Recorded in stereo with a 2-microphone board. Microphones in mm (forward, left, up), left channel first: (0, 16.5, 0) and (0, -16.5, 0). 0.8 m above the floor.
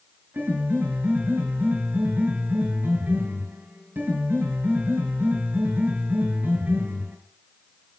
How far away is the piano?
About 6 m.